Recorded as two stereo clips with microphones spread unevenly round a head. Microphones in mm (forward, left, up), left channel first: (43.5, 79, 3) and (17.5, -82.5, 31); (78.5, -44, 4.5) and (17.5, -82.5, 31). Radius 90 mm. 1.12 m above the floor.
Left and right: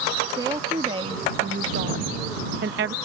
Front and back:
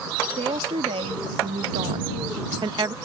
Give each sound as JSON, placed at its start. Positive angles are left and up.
{"t": 0.4, "sound": "a woman speaking", "azimuth_deg": -175}